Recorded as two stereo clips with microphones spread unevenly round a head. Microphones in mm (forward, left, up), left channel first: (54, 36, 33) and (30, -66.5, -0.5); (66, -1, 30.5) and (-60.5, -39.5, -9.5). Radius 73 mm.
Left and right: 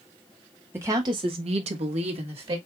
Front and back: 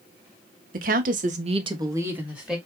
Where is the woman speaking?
175° right, 1.3 m; by 2.6 s 75° right, 1.9 m.